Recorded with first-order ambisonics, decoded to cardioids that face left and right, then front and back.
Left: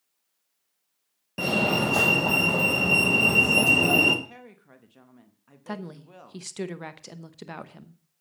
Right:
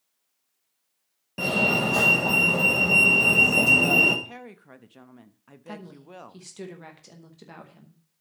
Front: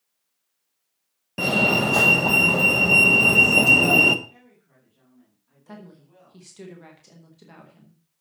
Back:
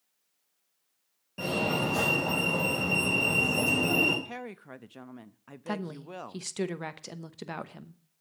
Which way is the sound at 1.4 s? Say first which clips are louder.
Right 1 dB, front 9 dB; 10° left.